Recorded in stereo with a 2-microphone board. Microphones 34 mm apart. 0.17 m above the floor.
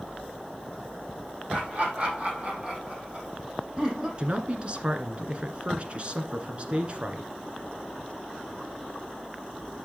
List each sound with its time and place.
1.5 s laughter: 40° right (ahead or behind), 6 m; by 4.1 s 25° right (ahead or behind), 5.5 m
4.2 s a man speaking: 35° right (ahead or behind), 1.6 m